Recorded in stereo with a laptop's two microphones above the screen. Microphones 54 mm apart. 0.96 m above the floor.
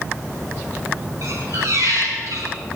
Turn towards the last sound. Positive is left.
turn(degrees=-75)  # may be behind; listen again after turning